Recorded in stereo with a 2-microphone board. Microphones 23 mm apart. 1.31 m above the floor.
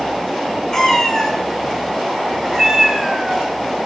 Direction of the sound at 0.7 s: 25° left (ahead or behind).